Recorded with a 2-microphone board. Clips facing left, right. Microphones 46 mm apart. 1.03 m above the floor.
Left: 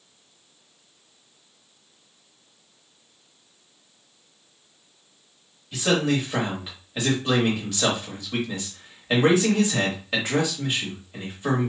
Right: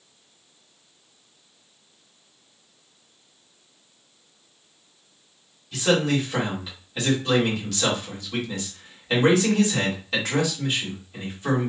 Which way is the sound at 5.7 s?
20° left (ahead or behind).